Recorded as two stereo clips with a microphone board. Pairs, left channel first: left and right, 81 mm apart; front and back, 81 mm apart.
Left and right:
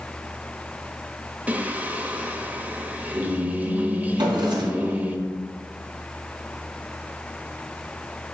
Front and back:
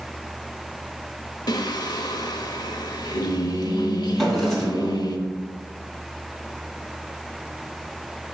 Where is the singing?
20° right, 0.9 m.